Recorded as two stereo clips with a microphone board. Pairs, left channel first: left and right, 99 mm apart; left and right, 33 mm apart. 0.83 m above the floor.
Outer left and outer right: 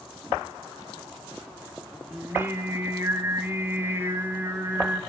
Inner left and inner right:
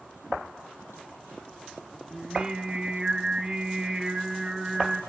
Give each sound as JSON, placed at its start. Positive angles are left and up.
{"t": 2.1, "sound": "singing", "side_deg": -20, "distance_m": 2.5}